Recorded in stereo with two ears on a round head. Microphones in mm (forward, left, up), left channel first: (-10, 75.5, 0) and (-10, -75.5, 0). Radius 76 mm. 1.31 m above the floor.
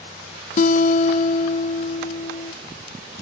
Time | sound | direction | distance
0.6 | a guitar | 50° left (ahead or behind) | 1.2 m